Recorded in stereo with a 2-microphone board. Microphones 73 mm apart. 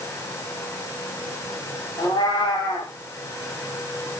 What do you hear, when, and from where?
2.0 s a cat meowing: 85° left, 8.5 m